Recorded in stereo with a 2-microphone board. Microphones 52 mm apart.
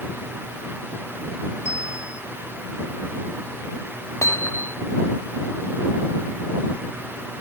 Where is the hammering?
60° left (ahead or behind).